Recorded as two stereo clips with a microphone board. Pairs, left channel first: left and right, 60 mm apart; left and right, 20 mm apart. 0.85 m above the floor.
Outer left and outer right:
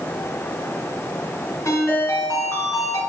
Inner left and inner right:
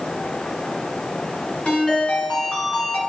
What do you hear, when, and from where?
1.6 s a ringtone: 60° left (ahead or behind), 4.5 m